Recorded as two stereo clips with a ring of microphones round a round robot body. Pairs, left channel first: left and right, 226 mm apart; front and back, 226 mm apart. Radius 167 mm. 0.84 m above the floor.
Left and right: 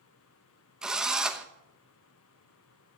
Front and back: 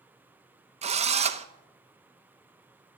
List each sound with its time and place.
0.8 s a drill: 175° right, 0.9 m